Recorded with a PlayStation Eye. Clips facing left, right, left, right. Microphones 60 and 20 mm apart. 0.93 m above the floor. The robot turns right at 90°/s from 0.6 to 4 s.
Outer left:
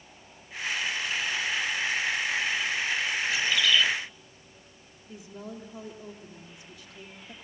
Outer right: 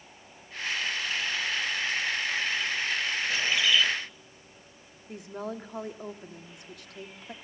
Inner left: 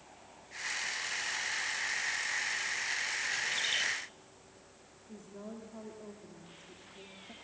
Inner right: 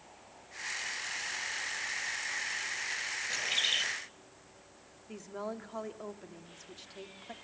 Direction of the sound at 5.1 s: 60° right (ahead or behind).